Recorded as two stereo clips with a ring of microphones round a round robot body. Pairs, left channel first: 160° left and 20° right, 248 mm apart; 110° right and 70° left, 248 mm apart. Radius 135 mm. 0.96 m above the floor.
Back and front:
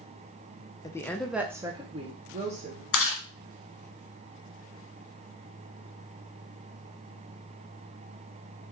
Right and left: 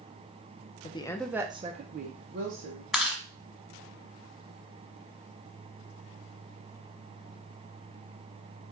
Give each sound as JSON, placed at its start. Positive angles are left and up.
{"t": 0.8, "sound": "a woman speaking", "azimuth_deg": -140, "distance_m": 0.6}
{"t": 2.9, "sound": "chewing", "azimuth_deg": 155, "distance_m": 1.0}